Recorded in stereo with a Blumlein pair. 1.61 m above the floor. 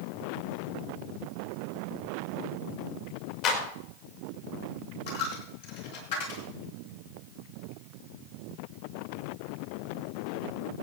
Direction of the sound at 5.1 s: 55° left.